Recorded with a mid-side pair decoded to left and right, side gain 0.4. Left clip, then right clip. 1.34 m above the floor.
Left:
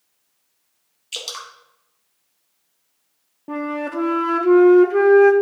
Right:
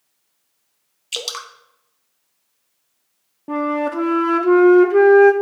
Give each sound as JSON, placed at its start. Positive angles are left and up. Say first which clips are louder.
{"t": 1.1, "sound": "dripping", "louder": "right 3 dB", "azimuth_deg": -40, "distance_m": 0.9}
{"t": 3.5, "sound": "a flute", "louder": "right 5 dB", "azimuth_deg": -20, "distance_m": 0.9}